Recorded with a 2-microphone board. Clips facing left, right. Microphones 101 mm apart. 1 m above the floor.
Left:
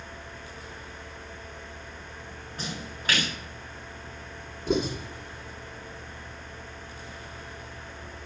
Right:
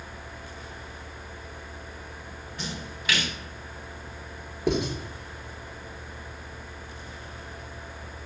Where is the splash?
40° left (ahead or behind), 4.5 m.